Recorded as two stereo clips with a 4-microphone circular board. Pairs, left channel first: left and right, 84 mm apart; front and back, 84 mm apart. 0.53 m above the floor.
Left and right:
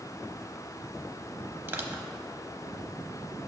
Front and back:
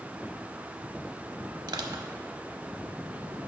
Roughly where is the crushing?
Behind right.